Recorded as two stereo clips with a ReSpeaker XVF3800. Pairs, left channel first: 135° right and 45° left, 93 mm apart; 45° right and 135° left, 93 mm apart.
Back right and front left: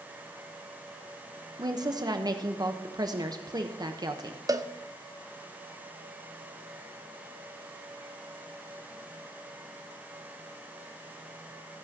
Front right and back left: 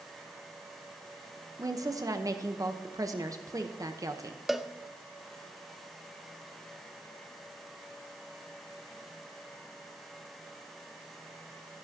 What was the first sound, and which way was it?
A woman speaking, 85° left.